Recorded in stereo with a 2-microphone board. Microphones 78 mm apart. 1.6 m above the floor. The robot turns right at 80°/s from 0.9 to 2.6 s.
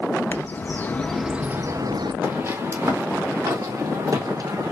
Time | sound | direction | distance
0.3 | a bird | 155° left | 0.5 m
2.2 | footsteps | 25° right (ahead or behind) | 2.0 m